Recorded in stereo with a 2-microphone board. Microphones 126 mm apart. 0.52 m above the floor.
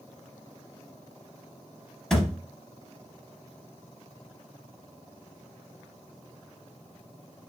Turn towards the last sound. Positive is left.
turn(degrees=5)  # may be behind; listen again after turning